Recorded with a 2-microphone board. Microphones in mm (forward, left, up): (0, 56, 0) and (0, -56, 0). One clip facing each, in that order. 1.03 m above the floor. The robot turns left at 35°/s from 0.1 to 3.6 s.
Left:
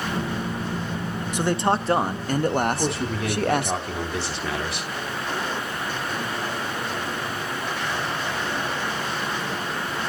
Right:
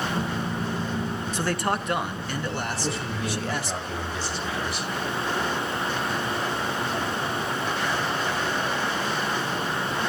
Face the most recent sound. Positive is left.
turn(degrees=75)  # may be behind; listen again after turning